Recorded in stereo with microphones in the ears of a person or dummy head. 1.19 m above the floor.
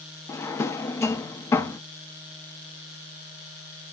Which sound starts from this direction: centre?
A drawer, at 0.3 s.